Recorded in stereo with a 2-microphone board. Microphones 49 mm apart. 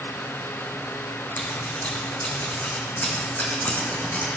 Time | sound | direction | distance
1.4 | scissors | 40° left (ahead or behind) | 3.5 m